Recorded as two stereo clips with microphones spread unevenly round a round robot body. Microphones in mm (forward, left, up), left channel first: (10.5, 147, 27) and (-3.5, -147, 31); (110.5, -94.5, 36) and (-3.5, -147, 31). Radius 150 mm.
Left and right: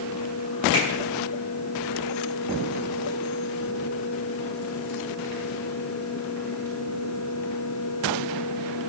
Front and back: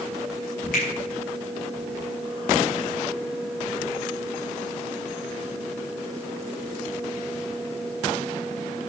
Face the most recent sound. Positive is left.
turn(degrees=45)